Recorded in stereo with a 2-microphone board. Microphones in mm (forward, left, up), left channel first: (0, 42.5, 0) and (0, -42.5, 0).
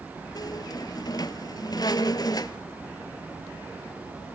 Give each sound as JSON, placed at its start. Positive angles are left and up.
{"t": 0.3, "sound": "a squeak", "side_deg": 50, "distance_m": 1.1}